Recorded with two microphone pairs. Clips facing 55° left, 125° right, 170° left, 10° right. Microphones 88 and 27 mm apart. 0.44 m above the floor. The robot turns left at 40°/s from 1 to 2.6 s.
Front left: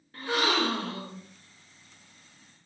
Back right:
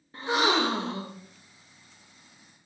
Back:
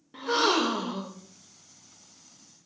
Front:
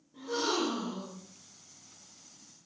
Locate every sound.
0.1 s a gasp: 170° left, 0.9 m; by 1.2 s 160° left, 0.9 m